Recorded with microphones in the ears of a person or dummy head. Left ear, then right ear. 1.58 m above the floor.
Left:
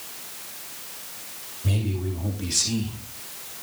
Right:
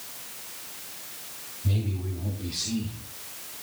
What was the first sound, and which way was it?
A man speaking, 70° left (ahead or behind).